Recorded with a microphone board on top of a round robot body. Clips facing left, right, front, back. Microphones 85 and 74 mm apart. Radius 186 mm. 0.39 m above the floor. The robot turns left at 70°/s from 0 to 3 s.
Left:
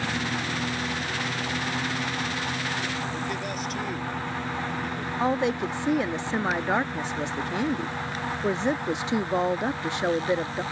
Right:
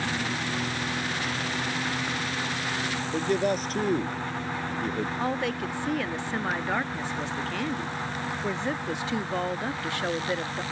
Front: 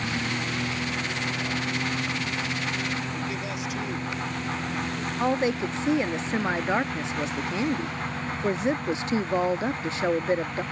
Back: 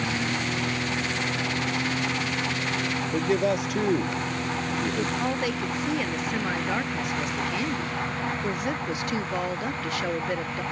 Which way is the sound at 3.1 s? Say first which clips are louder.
Right 6 dB, back 8 dB; 140° right.